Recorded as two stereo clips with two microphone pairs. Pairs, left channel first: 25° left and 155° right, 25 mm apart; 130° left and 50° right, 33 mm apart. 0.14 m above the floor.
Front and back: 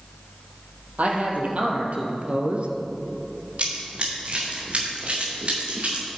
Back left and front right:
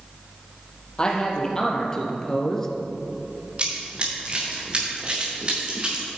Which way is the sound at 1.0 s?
165° right.